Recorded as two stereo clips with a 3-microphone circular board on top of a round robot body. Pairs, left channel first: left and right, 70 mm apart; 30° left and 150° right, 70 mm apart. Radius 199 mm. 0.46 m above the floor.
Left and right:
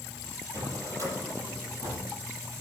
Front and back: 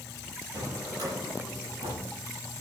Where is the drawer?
125° right, 7 m.